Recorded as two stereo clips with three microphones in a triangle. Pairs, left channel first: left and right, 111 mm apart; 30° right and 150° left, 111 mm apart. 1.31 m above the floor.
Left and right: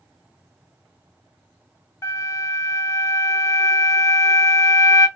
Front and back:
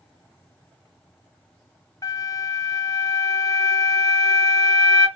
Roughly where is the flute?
Ahead left.